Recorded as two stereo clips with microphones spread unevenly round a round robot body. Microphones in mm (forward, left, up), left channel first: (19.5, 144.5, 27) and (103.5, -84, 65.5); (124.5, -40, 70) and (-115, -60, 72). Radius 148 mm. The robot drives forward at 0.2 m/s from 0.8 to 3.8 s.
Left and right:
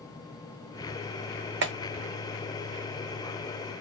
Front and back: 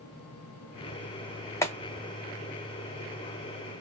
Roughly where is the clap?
Ahead right.